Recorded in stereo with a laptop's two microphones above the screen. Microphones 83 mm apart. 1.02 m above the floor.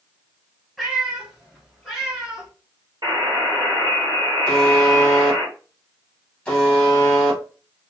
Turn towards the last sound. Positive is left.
turn(degrees=10)  # may be behind; listen again after turning